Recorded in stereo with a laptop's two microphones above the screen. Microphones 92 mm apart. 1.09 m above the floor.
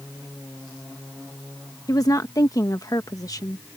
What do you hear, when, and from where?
1.9 s a woman speaking: 45° left (ahead or behind)